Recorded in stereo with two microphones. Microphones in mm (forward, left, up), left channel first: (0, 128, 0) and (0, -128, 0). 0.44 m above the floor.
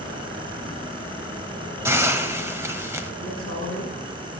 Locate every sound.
1.9 s a hiss: 10° right (ahead or behind), 0.6 m
3.2 s a man speaking: 70° right (ahead or behind), 4 m